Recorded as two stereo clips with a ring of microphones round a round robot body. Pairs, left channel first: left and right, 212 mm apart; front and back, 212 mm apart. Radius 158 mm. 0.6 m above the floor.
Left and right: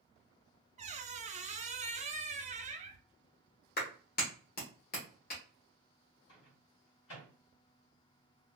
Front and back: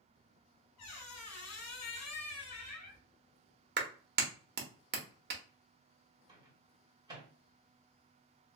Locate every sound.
0.8 s a squeak: 30° right, 0.6 m
3.8 s a clap: 140° left, 1.0 m
6.3 s a microwave: 110° left, 1.6 m